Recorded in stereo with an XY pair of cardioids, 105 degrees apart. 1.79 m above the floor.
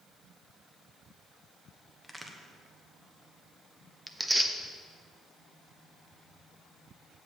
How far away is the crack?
About 1.3 m.